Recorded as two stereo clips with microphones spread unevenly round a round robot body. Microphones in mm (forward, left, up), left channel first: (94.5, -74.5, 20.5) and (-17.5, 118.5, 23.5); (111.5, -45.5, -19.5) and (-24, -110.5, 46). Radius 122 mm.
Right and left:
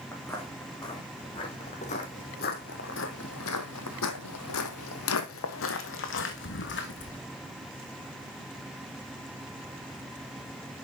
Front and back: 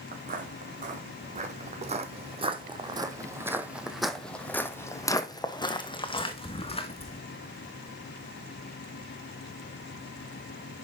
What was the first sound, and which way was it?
Footsteps, 140° right.